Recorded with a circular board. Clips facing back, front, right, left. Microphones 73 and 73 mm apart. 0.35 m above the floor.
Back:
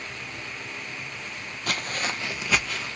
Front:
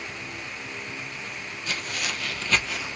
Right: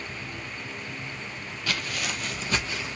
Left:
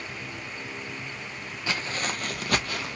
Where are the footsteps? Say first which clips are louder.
Back 3 dB, left 1 dB; 155° left, 0.7 m; by 3.0 s 75° left, 0.9 m.